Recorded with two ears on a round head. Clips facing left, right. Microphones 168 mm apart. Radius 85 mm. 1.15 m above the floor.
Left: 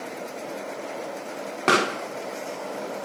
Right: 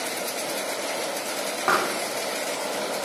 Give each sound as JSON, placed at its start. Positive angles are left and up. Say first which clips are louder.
{"t": 1.7, "sound": "a pop", "louder": "left 4 dB", "side_deg": 35, "distance_m": 1.3}